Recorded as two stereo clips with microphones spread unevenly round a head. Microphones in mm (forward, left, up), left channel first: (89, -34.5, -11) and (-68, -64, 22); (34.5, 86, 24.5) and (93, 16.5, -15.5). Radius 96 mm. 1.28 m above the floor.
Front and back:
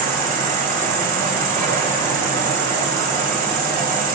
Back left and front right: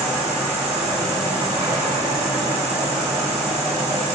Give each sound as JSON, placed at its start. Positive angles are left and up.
{"t": 0.0, "sound": "an insect", "azimuth_deg": -140, "distance_m": 5.0}